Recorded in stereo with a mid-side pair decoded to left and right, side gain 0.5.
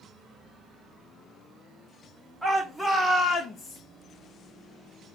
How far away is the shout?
About 1.6 m.